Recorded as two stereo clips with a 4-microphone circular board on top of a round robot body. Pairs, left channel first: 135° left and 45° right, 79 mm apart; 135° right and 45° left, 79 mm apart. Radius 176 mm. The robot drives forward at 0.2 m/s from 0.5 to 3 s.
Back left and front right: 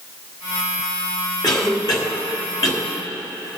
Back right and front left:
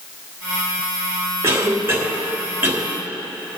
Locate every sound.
1.4 s a cough: 100° left, 3 m; by 2.8 s 105° left, 3 m